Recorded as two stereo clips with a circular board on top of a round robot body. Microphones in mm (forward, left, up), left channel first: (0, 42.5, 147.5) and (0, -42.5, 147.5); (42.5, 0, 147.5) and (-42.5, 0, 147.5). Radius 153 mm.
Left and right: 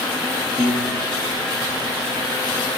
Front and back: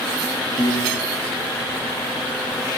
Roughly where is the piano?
Ahead right.